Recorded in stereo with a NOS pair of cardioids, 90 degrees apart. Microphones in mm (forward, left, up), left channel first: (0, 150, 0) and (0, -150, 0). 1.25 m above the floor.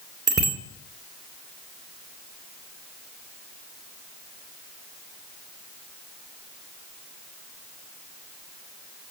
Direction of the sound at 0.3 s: 35° right.